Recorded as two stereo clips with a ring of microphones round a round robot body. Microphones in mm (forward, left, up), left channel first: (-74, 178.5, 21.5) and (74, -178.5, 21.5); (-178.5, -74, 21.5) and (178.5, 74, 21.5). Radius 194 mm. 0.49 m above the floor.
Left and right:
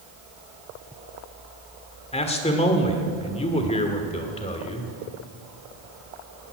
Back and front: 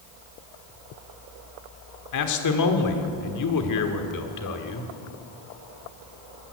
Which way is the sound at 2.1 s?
Straight behind.